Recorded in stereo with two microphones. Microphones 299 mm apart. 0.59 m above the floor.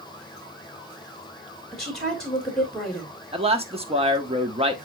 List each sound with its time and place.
1.7 s a woman speaking: centre (ahead or behind), 1.7 m
3.3 s a man speaking: 20° right (ahead or behind), 1.1 m